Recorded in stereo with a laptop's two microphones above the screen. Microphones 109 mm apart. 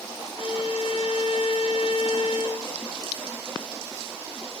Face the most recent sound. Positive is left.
turn(degrees=60)  # may be behind; listen again after turning